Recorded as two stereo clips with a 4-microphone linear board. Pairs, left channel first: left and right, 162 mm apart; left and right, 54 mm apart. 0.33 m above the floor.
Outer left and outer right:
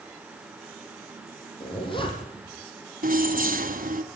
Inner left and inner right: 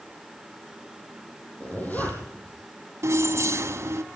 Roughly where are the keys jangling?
Right.